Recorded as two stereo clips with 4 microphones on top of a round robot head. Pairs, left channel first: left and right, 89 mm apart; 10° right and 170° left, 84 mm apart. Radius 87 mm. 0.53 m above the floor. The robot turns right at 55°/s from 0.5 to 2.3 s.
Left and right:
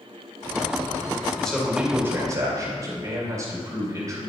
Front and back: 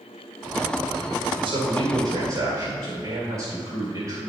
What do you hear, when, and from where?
1.4 s a man speaking: 170° left, 2.5 m; by 4.2 s 140° right, 2.5 m